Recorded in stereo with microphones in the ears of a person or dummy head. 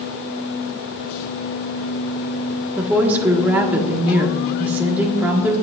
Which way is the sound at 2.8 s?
10° right (ahead or behind).